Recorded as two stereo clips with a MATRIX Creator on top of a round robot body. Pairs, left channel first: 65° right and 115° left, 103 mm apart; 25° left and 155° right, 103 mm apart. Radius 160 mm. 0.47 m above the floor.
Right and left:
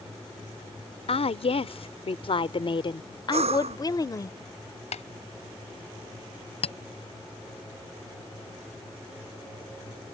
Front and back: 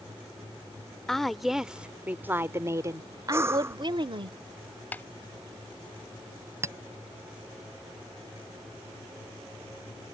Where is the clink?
95° right.